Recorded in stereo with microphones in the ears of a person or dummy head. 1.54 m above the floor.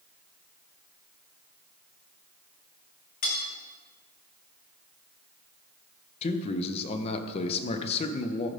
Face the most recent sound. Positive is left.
turn(degrees=35)  # may be behind; listen again after turning